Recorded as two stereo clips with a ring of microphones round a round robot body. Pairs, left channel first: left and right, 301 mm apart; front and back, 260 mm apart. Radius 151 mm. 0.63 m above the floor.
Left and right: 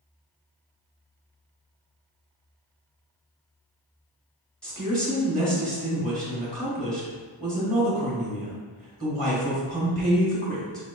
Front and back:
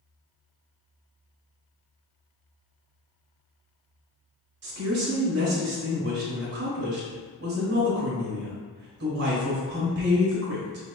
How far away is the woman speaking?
About 1.2 m.